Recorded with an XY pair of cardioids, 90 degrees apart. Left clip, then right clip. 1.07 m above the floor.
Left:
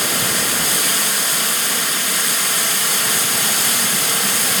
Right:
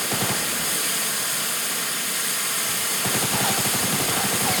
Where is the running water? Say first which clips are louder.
Left 6 dB; 60° left, 3.5 m.